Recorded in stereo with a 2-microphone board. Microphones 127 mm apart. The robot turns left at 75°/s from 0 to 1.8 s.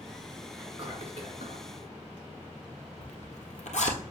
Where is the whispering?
20° right, 3 m; by 1.6 s 105° right, 3 m.